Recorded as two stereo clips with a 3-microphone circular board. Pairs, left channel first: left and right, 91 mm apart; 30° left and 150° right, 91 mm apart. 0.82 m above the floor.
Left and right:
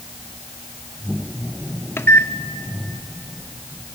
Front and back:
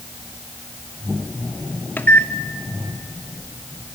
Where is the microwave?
75° left, 0.6 m.